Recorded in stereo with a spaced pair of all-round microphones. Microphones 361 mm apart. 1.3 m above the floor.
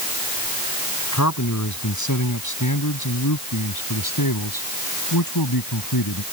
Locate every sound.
1.1 s a man speaking: 45° left (ahead or behind); by 6.2 s 65° left (ahead or behind)